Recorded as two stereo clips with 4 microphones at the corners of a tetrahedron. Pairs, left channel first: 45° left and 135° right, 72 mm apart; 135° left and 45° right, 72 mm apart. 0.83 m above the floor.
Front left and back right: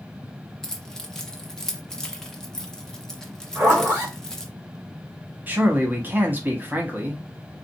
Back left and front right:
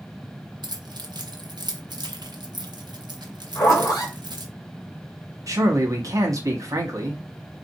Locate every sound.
0.6 s keys jangling: 40° right, 0.8 m
3.5 s a zipper: 170° left, 2.5 m
5.5 s a man speaking: 75° right, 1.4 m